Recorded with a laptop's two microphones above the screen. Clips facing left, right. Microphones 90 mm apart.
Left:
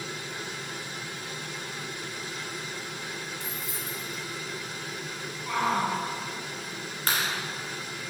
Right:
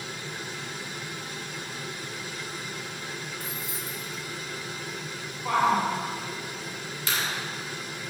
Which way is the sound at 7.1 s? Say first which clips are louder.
Left 2 dB; 50° left (ahead or behind).